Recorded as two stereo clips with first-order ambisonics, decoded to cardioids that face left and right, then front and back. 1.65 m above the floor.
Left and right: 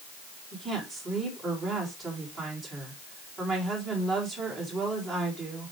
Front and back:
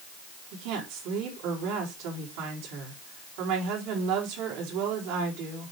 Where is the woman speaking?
175° right, 3.5 m.